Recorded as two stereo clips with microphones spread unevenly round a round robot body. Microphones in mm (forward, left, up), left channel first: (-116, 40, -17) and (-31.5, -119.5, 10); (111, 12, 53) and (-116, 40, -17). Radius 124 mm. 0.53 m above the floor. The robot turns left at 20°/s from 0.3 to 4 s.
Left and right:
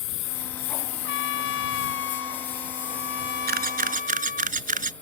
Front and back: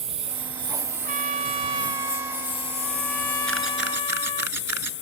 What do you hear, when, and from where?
0.0 s a lawn mower: 105° left; by 5.0 s 35° left
1.0 s a trumpet: 120° left; by 4.5 s 60° left
3.5 s a camera shutter: 95° right; by 4.9 s 105° right